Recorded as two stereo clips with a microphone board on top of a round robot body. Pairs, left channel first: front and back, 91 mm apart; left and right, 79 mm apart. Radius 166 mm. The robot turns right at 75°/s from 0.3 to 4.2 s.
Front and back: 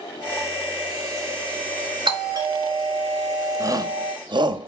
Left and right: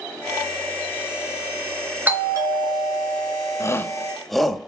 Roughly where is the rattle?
I don't hear a rattle.